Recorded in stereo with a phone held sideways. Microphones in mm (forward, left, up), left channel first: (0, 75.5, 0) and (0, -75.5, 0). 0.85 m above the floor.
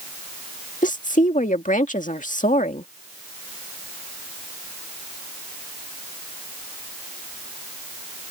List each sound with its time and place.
0.8 s a woman speaking: 60° left (ahead or behind)